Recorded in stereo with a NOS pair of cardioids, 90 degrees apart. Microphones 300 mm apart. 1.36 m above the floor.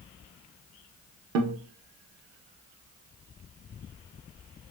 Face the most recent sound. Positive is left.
turn(degrees=-60)